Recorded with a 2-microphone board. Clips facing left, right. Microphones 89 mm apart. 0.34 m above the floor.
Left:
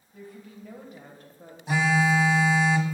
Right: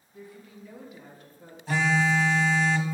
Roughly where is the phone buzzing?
Centre.